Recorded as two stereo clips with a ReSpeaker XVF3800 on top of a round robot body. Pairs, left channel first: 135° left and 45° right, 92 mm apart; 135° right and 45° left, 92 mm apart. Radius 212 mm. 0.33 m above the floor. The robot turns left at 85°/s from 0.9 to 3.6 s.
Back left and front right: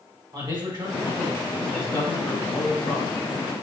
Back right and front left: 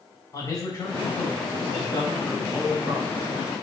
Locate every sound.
0.3 s a man speaking: 80° right, 3.5 m; by 3.2 s 85° left, 3.5 m